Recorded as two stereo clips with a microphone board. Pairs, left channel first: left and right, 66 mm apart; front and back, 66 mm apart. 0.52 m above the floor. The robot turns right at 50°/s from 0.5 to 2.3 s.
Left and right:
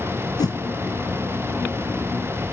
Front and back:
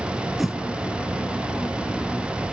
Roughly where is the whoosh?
Left.